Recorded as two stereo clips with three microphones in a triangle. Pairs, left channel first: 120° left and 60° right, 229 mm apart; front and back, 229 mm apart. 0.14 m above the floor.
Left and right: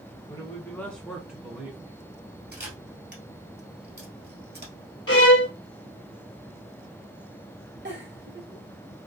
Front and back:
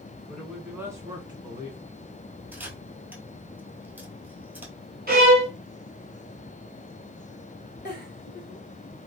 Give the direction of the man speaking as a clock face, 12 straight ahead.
9 o'clock.